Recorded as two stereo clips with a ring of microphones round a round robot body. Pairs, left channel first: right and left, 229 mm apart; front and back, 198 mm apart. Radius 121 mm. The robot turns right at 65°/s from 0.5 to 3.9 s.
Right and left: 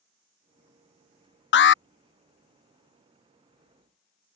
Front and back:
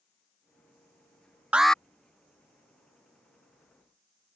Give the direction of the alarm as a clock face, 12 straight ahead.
3 o'clock.